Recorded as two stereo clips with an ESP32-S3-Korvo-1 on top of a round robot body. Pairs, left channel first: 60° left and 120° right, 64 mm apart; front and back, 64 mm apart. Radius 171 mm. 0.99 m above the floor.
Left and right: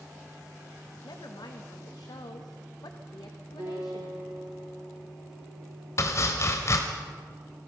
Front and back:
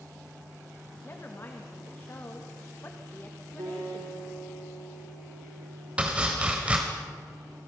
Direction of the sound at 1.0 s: 55° left.